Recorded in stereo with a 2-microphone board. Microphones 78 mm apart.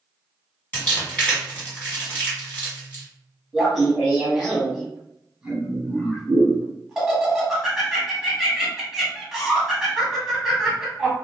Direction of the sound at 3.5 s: 5° right (ahead or behind).